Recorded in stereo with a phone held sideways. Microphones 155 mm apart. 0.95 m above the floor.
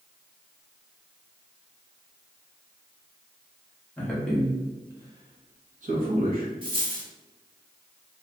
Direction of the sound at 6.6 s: 35° right (ahead or behind).